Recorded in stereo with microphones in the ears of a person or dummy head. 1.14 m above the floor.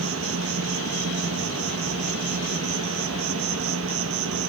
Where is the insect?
70° right (ahead or behind), 1.5 m.